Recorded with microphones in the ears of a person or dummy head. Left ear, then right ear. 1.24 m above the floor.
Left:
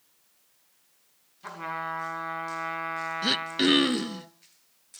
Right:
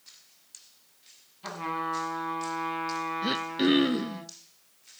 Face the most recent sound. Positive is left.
turn(degrees=25)  # may be behind; listen again after turning